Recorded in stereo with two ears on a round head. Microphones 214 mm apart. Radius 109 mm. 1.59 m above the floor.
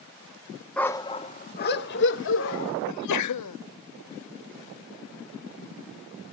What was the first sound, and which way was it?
A dog barking, 5° left (ahead or behind).